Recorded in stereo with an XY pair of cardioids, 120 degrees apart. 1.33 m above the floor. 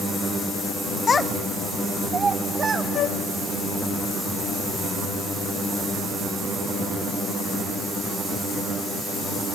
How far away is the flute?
About 2 m.